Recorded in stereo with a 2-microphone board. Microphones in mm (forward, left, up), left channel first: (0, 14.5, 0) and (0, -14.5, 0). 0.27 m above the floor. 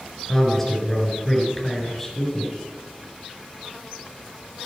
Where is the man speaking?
10° left (ahead or behind), 3.5 m.